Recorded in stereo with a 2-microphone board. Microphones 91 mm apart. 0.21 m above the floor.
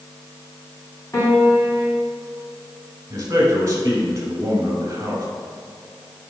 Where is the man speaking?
35° right (ahead or behind), 2.5 m.